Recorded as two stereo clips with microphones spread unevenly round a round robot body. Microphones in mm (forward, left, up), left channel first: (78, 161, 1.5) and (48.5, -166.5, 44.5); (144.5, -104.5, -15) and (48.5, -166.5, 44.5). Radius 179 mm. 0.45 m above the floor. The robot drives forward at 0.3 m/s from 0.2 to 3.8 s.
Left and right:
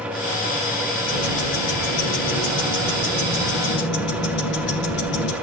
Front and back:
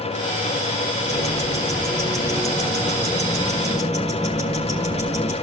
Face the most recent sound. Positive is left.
turn(degrees=145)